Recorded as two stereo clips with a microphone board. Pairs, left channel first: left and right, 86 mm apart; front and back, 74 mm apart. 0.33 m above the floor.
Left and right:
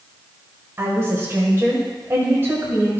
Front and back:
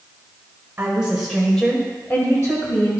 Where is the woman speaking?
135° right, 1.3 m; by 3.0 s 30° right, 2 m.